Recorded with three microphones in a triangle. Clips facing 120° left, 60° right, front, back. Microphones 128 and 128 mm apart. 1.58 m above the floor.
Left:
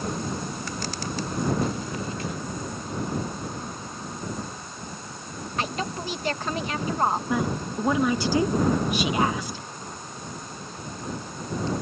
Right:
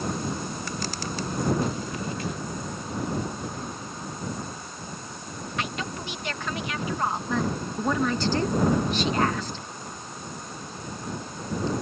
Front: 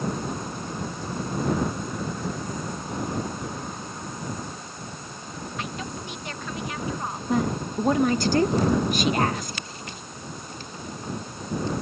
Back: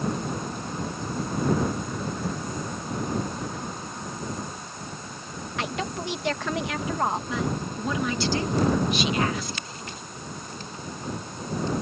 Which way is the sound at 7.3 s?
40° left.